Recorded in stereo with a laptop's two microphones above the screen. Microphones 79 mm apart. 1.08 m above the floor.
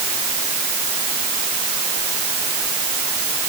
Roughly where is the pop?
No pop in this recording.